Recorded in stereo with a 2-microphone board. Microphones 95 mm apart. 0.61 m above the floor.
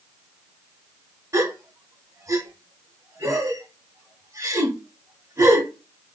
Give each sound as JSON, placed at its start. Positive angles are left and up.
{"t": 1.3, "sound": "a gasp", "side_deg": -35, "distance_m": 0.8}